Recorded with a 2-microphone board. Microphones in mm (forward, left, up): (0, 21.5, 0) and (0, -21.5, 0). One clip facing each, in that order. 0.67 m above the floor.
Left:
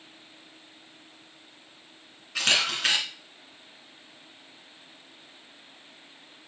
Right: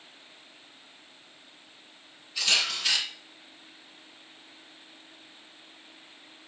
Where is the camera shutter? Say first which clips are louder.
Left 3 dB; 70° left (ahead or behind), 3.5 m.